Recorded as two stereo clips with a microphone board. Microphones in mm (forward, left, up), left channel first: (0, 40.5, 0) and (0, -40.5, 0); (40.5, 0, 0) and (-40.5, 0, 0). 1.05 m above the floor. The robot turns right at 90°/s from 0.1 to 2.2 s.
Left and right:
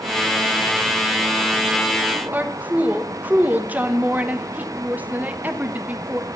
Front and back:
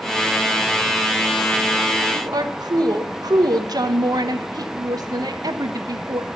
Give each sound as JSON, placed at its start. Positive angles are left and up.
{"t": 2.1, "sound": "a woman speaking", "azimuth_deg": -165, "distance_m": 1.0}